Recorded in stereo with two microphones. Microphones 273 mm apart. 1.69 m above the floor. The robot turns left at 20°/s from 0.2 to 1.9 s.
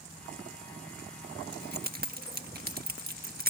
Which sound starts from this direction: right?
Keys jangling, at 1.5 s.